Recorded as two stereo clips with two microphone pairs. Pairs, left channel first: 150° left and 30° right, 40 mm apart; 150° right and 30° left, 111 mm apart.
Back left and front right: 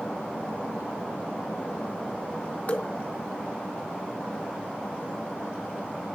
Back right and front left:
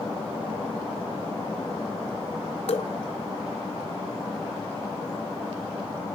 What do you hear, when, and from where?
2.7 s dripping: 160° right, 0.6 m